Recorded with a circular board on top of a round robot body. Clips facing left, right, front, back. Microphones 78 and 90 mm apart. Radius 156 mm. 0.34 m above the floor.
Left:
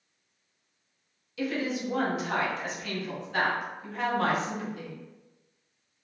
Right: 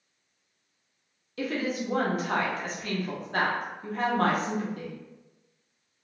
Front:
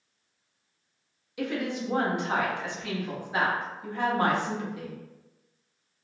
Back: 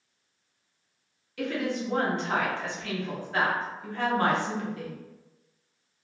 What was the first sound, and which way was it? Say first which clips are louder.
A woman speaking: even, back 1 dB; 70° right.